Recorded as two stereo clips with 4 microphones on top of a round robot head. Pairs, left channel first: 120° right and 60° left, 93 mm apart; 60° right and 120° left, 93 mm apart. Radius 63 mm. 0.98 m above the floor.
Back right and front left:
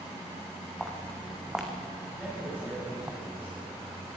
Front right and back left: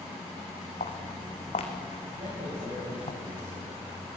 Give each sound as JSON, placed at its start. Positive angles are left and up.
{"t": 0.8, "sound": "footsteps", "azimuth_deg": -30, "distance_m": 4.0}
{"t": 2.2, "sound": "a man speaking", "azimuth_deg": 130, "distance_m": 8.5}